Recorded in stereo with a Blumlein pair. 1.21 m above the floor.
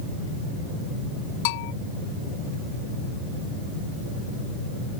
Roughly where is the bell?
Ahead left.